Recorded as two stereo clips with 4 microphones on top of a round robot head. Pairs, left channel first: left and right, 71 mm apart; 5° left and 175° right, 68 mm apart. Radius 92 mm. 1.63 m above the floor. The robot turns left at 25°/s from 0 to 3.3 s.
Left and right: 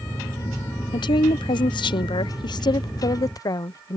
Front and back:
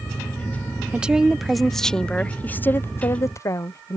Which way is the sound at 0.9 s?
110° left.